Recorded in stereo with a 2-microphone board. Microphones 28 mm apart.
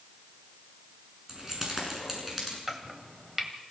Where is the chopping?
5° right (ahead or behind), 2 m.